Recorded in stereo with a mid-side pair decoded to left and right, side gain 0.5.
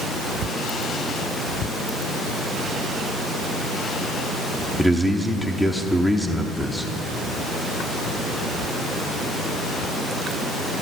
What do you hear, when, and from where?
4.8 s a man speaking: 10° left, 0.9 m